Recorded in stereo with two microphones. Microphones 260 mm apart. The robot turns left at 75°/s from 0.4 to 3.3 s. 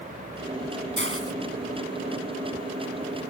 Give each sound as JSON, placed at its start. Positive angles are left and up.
{"t": 1.0, "sound": "a hiss", "side_deg": -45}